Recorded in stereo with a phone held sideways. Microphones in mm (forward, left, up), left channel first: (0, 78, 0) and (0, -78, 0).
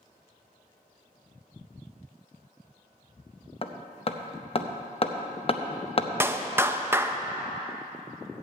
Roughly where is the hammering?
Left.